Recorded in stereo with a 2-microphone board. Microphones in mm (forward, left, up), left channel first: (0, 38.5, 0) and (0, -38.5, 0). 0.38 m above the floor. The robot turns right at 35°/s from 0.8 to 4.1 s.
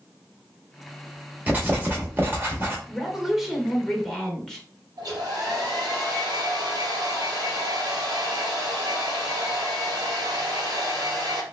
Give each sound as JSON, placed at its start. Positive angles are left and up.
{"t": 1.5, "sound": "writing", "side_deg": -20, "distance_m": 1.5}
{"t": 2.9, "sound": "a woman speaking", "side_deg": -10, "distance_m": 1.0}
{"t": 5.0, "sound": "a hair dryer", "side_deg": -60, "distance_m": 2.0}